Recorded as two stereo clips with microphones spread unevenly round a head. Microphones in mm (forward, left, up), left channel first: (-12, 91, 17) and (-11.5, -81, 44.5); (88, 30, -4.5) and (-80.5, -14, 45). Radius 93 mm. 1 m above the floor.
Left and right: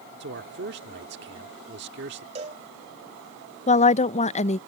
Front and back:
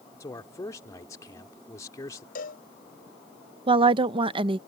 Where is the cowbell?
35° right.